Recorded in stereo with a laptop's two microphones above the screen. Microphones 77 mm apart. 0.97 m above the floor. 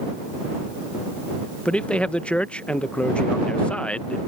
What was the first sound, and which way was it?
A man speaking, 15° left (ahead or behind).